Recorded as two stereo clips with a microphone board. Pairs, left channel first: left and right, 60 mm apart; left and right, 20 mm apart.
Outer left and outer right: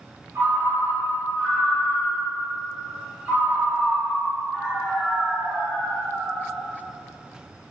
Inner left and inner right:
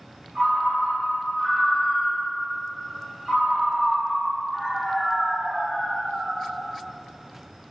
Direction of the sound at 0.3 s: 30° right (ahead or behind).